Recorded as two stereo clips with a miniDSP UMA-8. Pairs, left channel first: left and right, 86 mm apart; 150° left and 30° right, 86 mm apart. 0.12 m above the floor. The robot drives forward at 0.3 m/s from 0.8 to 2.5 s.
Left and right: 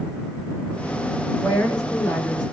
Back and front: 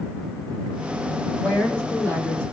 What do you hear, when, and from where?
1.4 s a woman speaking: 105° left, 2 m; by 2.4 s 115° left, 2 m